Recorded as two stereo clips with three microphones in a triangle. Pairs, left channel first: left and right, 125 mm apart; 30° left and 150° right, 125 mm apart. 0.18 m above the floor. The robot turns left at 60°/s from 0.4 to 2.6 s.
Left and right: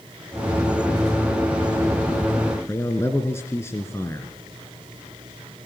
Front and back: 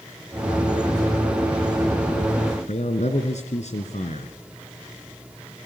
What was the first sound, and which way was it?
A man speaking, 20° left.